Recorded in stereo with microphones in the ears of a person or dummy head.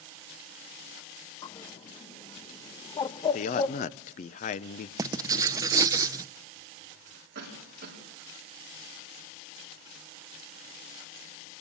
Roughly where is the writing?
Centre.